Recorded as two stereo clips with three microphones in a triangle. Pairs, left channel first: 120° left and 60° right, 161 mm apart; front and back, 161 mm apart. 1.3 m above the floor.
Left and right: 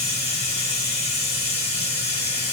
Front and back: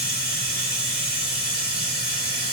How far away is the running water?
About 1.7 m.